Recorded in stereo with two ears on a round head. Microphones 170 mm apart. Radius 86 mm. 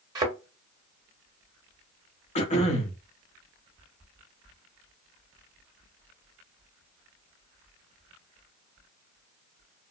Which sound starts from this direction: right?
A thud, at 0.1 s.